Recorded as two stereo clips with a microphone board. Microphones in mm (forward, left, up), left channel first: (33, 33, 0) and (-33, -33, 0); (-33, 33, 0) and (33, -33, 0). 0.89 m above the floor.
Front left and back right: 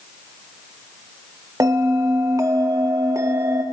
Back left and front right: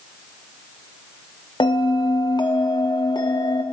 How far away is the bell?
About 0.8 m.